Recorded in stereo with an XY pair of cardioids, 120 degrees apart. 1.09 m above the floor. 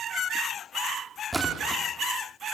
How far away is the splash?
About 3.5 m.